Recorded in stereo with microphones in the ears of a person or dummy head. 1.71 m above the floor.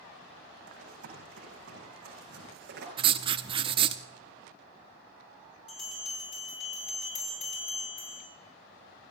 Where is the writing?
30° right (ahead or behind), 0.6 m.